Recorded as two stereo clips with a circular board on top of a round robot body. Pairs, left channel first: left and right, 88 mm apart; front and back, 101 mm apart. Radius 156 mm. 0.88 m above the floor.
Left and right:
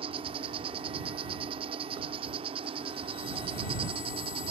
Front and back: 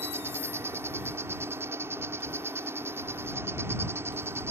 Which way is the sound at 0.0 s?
110° right.